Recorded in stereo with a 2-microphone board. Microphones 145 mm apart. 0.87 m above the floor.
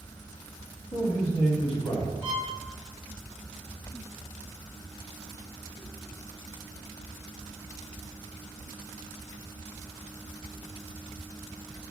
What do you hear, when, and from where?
0.9 s a man speaking: 35° left (ahead or behind), 1.1 m
2.2 s a violin: 10° right (ahead or behind), 0.7 m